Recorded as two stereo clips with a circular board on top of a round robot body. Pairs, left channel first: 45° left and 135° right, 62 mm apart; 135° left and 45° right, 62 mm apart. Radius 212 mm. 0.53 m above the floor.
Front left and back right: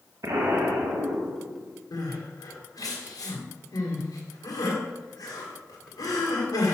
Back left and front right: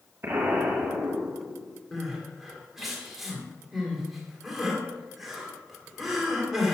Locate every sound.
0.2 s an explosion: 100° right, 1.2 m
1.9 s crying: 40° left, 2 m